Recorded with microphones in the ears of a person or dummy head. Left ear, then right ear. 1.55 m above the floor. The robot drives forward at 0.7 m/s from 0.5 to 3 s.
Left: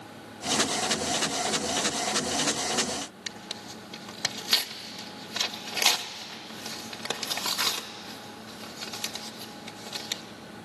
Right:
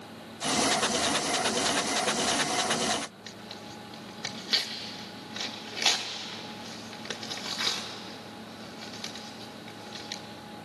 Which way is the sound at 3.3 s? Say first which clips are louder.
Left 4 dB; 30° left (ahead or behind).